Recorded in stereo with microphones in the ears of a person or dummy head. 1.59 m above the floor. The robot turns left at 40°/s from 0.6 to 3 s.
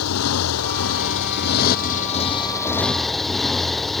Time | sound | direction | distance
0.0 | a motorcycle | 95° left | ?